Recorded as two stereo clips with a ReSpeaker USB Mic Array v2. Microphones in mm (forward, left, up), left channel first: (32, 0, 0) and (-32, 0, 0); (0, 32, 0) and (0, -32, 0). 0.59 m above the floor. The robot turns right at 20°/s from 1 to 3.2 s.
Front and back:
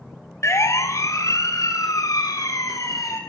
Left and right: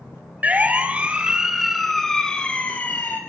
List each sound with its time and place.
0.4 s a siren: 30° right, 2.5 m; by 3.2 s 35° left, 4 m